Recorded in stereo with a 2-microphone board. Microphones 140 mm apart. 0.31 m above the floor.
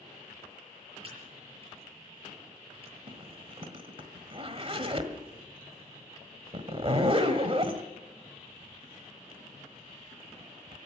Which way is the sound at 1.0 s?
40° right (ahead or behind).